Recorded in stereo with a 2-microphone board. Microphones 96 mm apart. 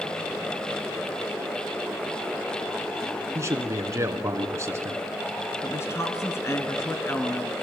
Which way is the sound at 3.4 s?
30° right (ahead or behind).